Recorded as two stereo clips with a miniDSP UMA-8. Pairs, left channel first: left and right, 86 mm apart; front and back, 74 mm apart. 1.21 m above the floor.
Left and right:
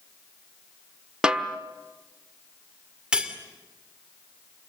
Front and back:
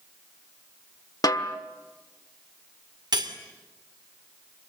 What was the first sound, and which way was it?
A snare drum, 10° right.